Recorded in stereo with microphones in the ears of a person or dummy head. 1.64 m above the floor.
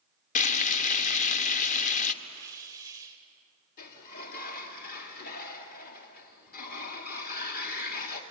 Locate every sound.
0.3 s frying: 40° left (ahead or behind), 1.1 m
2.2 s a hiss: 20° right (ahead or behind), 2 m
3.8 s a sliding door: 50° left (ahead or behind), 2.5 m